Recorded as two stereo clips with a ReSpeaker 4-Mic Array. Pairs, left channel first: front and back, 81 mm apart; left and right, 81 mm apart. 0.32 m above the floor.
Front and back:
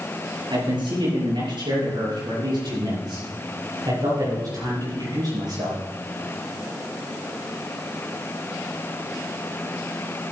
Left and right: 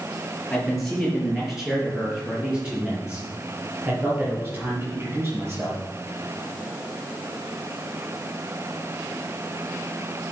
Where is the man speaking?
175° left, 5.5 m; by 5.8 s 150° right, 7 m.